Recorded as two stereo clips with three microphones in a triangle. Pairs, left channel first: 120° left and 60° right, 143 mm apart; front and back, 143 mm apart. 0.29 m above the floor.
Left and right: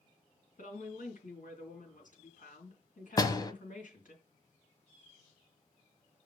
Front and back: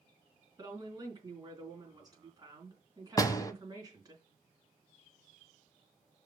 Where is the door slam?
60° left, 1.2 m.